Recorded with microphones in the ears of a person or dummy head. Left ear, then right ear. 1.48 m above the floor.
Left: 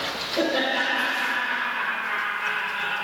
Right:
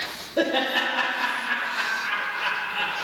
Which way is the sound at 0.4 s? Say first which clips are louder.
Right 1 dB; 70° right (ahead or behind).